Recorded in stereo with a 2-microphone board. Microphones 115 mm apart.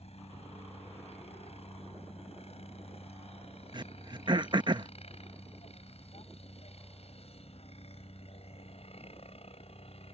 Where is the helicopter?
65° left (ahead or behind); by 10.2 s 60° left (ahead or behind).